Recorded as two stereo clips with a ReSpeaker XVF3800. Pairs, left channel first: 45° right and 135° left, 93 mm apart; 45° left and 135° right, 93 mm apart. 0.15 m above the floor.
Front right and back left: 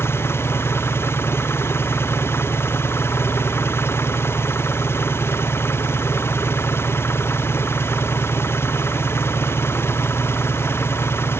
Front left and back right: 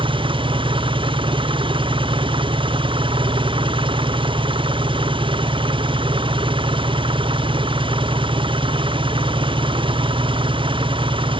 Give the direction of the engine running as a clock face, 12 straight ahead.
4 o'clock.